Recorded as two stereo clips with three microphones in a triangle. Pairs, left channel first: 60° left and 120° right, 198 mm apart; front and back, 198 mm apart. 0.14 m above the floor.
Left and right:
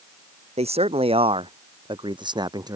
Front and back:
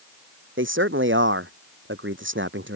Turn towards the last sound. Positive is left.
turn(degrees=170)